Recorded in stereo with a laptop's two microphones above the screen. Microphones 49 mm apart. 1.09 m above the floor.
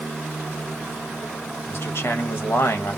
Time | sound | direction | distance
1.7 | a man speaking | 60° left (ahead or behind) | 1.1 m